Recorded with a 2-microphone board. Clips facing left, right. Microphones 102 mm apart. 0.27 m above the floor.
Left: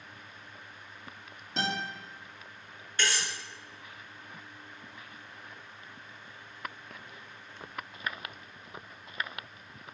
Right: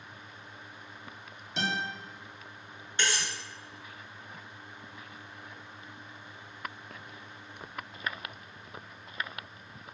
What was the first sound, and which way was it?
A guitar, 45° left (ahead or behind).